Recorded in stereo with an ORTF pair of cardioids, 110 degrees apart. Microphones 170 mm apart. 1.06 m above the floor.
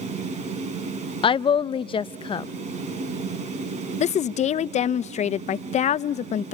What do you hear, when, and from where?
0.0 s a fan: 45° right, 3 m
1.2 s a woman speaking: 30° left, 0.6 m
4.0 s a woman speaking: 45° left, 0.6 m